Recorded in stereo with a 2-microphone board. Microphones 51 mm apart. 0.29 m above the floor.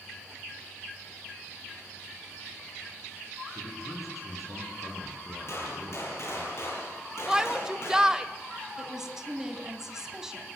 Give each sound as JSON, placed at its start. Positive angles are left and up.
{"t": 3.5, "sound": "a man speaking", "side_deg": 70, "distance_m": 9.0}
{"t": 5.5, "sound": "a gunshot", "side_deg": 55, "distance_m": 7.0}
{"t": 7.3, "sound": "a shout", "side_deg": -15, "distance_m": 0.9}
{"t": 8.8, "sound": "a woman speaking", "side_deg": -10, "distance_m": 2.5}